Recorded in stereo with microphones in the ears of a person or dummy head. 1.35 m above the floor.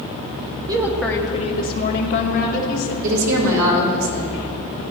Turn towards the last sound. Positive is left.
turn(degrees=-75)  # may be behind; listen again after turning